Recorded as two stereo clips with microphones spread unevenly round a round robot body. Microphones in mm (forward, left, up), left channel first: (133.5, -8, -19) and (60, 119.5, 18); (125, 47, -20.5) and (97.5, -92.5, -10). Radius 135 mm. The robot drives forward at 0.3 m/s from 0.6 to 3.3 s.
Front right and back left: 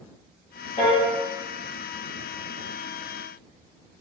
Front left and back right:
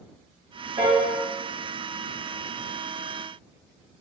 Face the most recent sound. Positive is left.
turn(degrees=-130)